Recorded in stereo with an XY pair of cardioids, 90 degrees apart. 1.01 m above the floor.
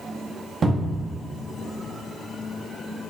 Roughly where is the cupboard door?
Ahead right.